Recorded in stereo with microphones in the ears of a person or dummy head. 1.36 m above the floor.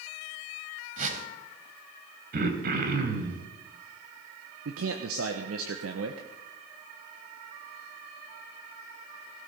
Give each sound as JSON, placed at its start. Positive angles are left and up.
{"t": 1.0, "sound": "a whoosh", "side_deg": -45, "distance_m": 2.5}
{"t": 2.3, "sound": "throat clearing", "side_deg": -55, "distance_m": 2.5}
{"t": 4.7, "sound": "a man speaking", "side_deg": -80, "distance_m": 1.2}